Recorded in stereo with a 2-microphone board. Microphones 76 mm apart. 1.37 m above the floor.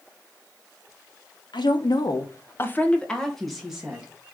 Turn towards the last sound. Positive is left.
turn(degrees=-10)  # may be behind; listen again after turning